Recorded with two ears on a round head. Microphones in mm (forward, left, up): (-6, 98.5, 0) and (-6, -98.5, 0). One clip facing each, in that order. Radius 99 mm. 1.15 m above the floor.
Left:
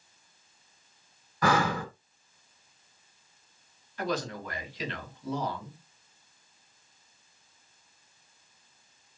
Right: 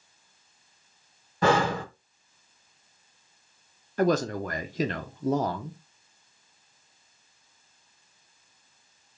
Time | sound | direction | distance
1.4 | breathing | 25° right (ahead or behind) | 0.9 m
4.0 | a man speaking | 40° right (ahead or behind) | 0.7 m